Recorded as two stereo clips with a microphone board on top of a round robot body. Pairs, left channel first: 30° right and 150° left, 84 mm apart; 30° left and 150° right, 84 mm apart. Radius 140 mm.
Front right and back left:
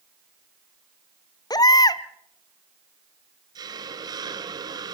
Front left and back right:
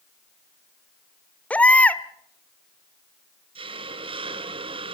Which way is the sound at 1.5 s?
40° right.